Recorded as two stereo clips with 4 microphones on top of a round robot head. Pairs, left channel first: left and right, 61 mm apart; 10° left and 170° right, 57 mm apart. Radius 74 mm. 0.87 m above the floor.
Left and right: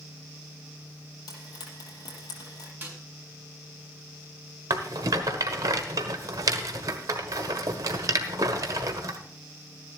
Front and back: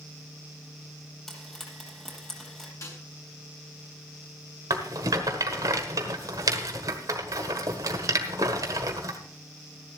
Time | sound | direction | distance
1.3 | frying | 90° left | 6.5 m
2.8 | a snare drum | 30° right | 6.5 m
4.7 | a rattle | 130° right | 1.3 m